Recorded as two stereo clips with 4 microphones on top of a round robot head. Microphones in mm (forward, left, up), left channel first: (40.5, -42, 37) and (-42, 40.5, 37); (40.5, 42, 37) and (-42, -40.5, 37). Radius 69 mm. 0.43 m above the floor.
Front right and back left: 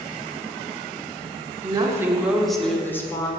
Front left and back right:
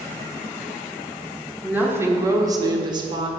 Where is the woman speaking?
150° left, 1.5 m; by 3.3 s 100° right, 1.9 m.